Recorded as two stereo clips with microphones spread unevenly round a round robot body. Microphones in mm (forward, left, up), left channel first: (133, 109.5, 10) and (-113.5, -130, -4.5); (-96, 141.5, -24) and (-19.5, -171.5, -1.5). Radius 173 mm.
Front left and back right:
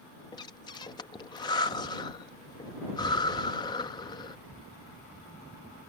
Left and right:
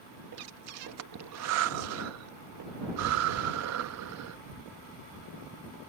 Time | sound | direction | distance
0.3 | breathing | 35° right | ?